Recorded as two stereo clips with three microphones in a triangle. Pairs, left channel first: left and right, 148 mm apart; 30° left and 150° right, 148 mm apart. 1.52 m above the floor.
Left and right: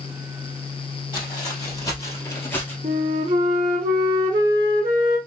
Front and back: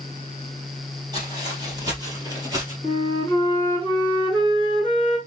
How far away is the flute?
About 3 m.